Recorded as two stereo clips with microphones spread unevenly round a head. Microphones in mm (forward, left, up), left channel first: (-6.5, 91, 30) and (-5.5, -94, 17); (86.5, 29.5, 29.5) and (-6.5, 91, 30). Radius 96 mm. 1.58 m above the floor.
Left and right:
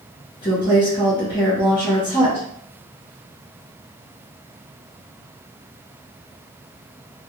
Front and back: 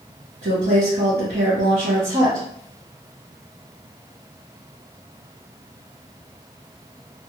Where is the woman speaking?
150° left, 1.1 m.